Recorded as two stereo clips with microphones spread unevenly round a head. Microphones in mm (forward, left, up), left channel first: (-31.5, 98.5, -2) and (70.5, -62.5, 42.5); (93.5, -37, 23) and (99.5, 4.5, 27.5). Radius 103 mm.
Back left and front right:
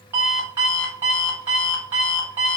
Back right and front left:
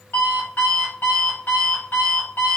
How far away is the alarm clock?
About 1.2 m.